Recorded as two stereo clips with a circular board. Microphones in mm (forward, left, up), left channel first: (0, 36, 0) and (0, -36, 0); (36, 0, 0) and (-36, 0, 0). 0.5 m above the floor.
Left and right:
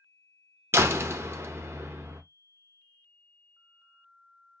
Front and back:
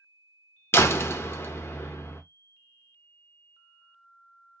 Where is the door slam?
45° right, 0.6 m.